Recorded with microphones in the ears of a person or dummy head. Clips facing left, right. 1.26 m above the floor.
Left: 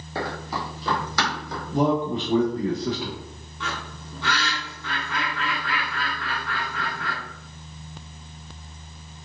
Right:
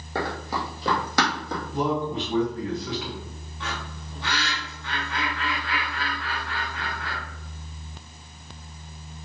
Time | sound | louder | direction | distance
0.1 | running footsteps | right 1 dB | 45° right (ahead or behind) | 2 m
1.7 | a man speaking | left 4 dB | 25° left (ahead or behind) | 1.1 m
3.6 | a bird | left 1 dB | 50° left (ahead or behind) | 2.5 m